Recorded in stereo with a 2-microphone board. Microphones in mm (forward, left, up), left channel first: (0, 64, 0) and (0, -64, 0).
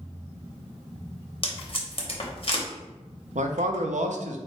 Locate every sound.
1.4 s tape being pulled: 45° left (ahead or behind), 0.8 m
3.4 s a man speaking: 75° right (ahead or behind), 0.5 m